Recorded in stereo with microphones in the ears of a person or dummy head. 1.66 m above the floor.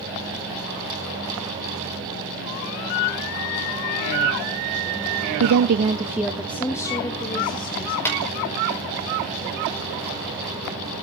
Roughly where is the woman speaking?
Right.